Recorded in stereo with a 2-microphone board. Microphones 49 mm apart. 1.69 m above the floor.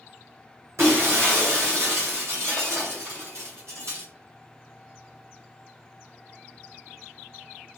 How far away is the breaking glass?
About 2.5 m.